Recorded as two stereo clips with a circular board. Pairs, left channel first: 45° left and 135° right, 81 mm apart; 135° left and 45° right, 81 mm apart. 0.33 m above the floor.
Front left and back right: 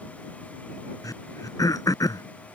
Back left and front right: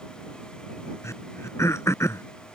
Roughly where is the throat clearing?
Left.